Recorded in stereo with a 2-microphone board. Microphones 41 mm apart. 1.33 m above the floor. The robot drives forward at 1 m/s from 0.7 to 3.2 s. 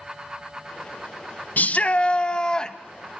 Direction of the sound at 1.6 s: 40° left (ahead or behind).